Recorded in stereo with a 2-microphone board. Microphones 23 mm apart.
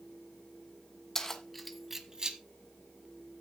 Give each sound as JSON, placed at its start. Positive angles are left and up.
{"t": 1.1, "sound": "keys jangling", "side_deg": 20, "distance_m": 1.5}